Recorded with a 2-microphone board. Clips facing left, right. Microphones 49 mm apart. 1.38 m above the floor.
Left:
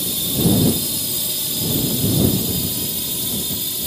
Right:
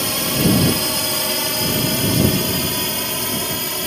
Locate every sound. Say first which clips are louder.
0.0 s a drone: right 2 dB; 65° right (ahead or behind); by 3.9 s 55° right (ahead or behind)